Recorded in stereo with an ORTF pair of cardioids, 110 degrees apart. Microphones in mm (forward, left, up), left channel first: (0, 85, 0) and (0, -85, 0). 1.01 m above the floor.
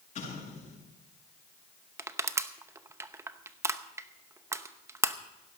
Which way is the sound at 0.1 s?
45° left.